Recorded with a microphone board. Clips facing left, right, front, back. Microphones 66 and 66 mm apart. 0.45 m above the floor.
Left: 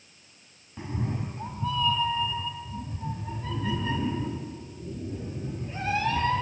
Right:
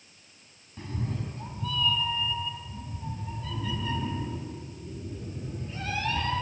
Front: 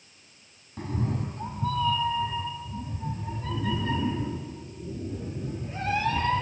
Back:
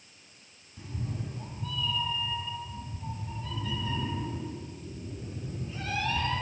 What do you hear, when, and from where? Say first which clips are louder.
0.8 s a cat meowing: left 3 dB, front 8 dB; 20° left, 1.4 m; by 6.4 s 40° left, 4.5 m